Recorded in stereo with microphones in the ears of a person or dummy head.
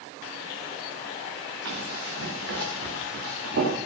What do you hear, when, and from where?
1.6 s running footsteps: 70° right (ahead or behind), 5.5 m